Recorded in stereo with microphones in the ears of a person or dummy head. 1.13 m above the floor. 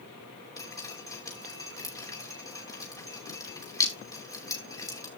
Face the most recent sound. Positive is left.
turn(degrees=20)  # may be behind; listen again after turning